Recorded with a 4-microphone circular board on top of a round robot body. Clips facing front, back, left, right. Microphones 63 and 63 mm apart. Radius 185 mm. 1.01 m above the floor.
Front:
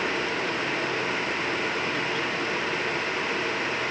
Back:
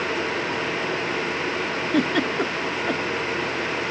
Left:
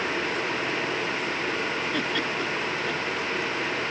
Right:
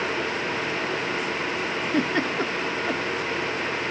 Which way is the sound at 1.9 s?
150° right.